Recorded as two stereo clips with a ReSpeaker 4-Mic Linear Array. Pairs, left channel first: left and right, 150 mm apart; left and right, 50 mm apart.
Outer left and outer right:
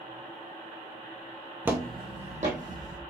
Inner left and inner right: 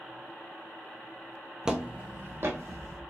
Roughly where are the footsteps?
Centre.